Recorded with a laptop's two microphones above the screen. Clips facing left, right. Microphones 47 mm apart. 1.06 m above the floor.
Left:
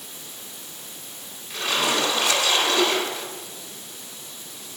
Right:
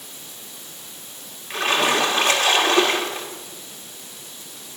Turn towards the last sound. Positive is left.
turn(degrees=-50)  # may be behind; listen again after turning